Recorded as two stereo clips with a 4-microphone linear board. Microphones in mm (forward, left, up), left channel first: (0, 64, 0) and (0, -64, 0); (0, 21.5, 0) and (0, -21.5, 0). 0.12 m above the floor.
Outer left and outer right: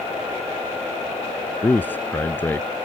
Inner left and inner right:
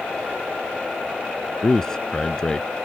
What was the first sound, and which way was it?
A man speaking, 15° left (ahead or behind).